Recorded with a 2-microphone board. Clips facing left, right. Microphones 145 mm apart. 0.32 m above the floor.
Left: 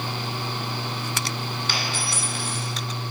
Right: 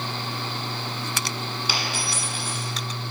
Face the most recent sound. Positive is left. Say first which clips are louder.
# even
turn(degrees=-10)  # may be behind; listen again after turning